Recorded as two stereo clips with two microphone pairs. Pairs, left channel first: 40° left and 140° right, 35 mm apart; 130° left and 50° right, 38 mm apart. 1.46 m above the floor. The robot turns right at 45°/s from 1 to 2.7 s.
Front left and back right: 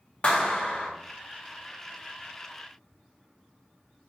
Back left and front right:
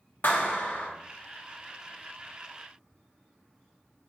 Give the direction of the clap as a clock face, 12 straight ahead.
9 o'clock.